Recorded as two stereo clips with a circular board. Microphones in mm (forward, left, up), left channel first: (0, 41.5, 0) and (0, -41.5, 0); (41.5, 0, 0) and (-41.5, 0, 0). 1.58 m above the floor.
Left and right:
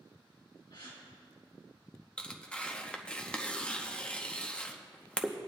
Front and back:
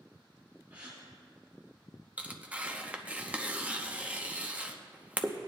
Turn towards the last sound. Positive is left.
turn(degrees=145)